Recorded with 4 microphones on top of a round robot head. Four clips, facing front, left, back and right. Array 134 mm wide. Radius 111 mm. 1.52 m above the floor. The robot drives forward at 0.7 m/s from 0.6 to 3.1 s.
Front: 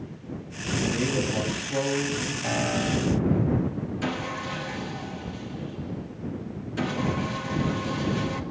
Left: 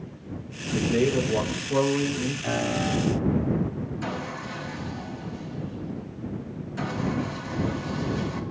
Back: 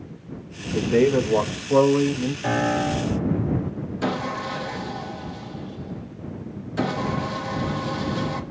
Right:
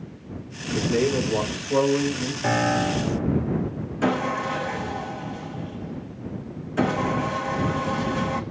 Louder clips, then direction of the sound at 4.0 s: Right 9 dB, back 8 dB; 115° right.